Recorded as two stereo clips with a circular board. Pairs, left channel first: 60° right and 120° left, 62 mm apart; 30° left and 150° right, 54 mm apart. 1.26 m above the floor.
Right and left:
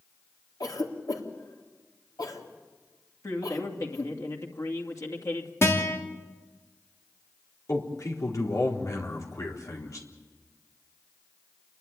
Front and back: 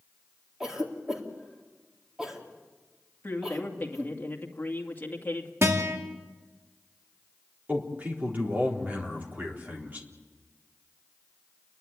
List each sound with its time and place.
0.6 s a cough: 70° right, 3.5 m
3.2 s a man speaking: 25° right, 2.5 m
5.6 s a guitar: 110° right, 2.5 m
7.7 s a man speaking: 90° right, 4 m